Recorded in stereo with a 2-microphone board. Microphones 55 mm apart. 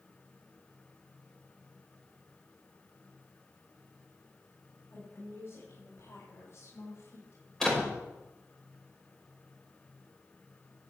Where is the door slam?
10° left (ahead or behind), 6 m.